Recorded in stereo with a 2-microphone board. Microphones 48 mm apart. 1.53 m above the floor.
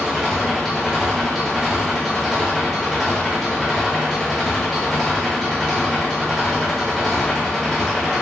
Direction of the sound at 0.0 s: 5° right (ahead or behind).